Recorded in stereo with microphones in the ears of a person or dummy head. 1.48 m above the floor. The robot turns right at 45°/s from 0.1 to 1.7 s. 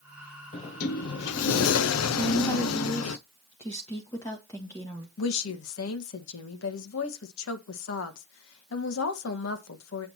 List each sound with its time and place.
0.5 s a sliding door: 40° left, 0.6 m; by 3.2 s 90° left, 0.6 m
2.2 s a woman speaking: 20° left (ahead or behind), 1.5 m
5.2 s a woman speaking: 75° left (ahead or behind), 1.3 m